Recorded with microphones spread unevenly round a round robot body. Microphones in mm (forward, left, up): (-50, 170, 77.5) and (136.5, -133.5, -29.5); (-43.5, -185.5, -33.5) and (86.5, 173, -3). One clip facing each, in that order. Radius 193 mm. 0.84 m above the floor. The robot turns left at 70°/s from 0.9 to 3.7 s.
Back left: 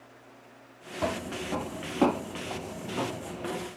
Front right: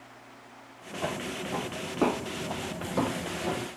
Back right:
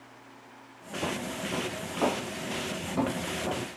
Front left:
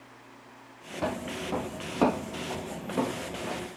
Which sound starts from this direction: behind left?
Footsteps, at 1.0 s.